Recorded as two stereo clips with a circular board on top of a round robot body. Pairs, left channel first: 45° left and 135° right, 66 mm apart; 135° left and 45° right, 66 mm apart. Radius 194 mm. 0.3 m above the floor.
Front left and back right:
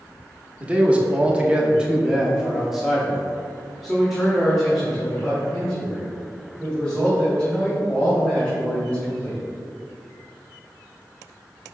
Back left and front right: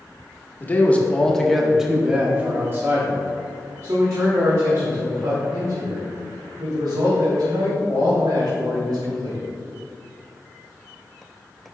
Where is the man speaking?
170° left, 1.3 m; by 9.4 s 35° right, 4.5 m.